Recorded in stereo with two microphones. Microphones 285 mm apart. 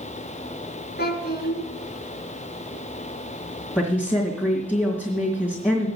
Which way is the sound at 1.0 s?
35° left (ahead or behind).